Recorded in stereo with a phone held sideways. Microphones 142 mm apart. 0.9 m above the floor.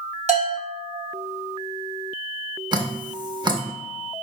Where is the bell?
50° right (ahead or behind), 1.1 m.